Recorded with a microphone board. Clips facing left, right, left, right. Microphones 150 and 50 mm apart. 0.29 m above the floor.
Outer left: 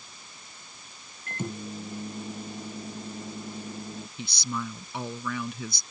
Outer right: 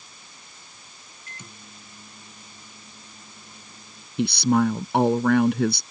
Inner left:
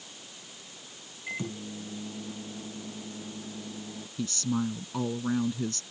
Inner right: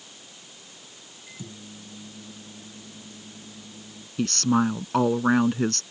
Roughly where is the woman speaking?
Right.